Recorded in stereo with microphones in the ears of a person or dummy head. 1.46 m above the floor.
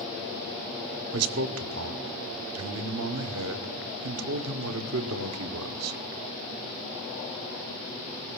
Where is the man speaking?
75° right (ahead or behind), 0.9 m.